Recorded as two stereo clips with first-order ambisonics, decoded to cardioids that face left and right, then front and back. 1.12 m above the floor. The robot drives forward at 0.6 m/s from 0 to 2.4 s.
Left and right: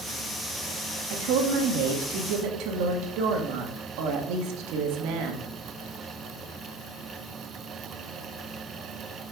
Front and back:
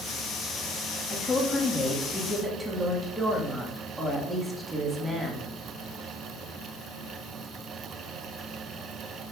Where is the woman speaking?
70° right, 1.7 m; by 5.5 s 100° right, 1.6 m.